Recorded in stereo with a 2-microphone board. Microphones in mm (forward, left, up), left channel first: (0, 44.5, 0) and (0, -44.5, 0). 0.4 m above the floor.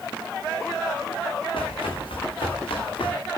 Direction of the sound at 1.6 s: 80° left.